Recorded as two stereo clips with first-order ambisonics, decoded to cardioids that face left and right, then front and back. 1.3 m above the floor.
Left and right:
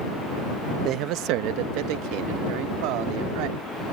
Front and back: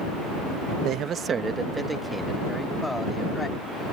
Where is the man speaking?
135° right; by 3.6 s 80° right.